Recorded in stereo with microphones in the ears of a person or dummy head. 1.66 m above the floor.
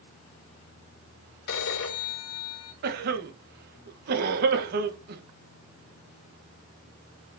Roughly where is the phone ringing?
Left.